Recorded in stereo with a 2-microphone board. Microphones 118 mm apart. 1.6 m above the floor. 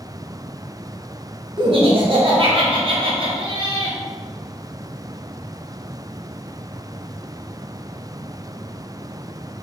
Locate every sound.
1.6 s laughter: 45° right (ahead or behind), 1.3 m